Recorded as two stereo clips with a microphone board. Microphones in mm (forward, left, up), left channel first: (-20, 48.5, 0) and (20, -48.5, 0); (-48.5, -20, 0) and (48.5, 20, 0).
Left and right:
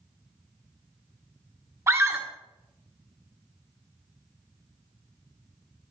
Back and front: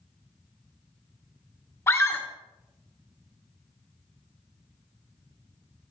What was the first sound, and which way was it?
A scream, 115° right.